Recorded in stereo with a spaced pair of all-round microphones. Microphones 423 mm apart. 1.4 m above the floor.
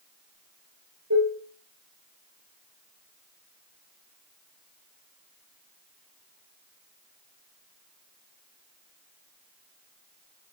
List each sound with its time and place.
1.1 s dishes clattering: 40° right (ahead or behind), 5 m